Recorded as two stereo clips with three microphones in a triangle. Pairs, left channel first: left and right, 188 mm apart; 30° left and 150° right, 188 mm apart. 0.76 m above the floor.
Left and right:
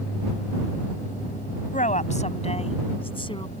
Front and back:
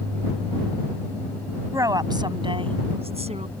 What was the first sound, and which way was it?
A woman speaking, 135° left.